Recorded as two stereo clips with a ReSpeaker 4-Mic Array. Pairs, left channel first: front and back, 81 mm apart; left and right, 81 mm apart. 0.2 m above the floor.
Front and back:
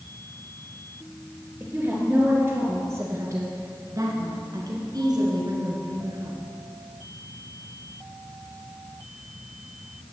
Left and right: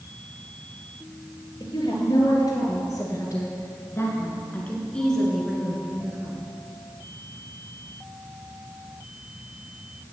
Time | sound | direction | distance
1.6 | a woman speaking | 115° left | 3.5 m